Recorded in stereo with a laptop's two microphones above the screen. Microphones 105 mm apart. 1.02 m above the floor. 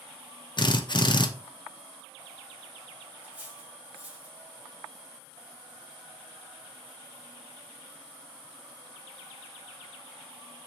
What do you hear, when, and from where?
0.6 s a drill: 45° left (ahead or behind), 0.5 m
3.2 s cutlery clinking: 10° right (ahead or behind), 1.2 m